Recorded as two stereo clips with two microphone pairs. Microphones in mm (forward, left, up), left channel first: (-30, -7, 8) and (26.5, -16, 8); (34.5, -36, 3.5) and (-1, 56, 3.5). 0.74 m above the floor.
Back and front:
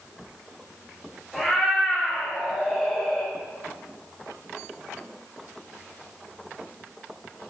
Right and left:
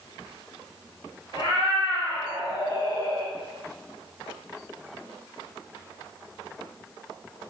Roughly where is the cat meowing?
Right.